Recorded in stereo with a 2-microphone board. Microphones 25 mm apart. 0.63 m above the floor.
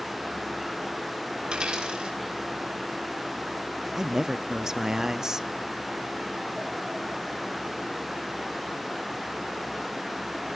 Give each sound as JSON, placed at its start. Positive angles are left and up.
{"t": 1.4, "sound": "a dropped coin", "side_deg": -35, "distance_m": 4.5}
{"t": 4.0, "sound": "a man speaking", "side_deg": -20, "distance_m": 0.5}